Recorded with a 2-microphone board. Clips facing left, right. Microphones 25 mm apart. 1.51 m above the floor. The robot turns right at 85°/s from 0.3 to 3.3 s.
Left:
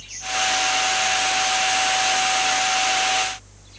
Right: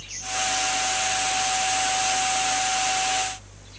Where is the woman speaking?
I don't hear a woman speaking.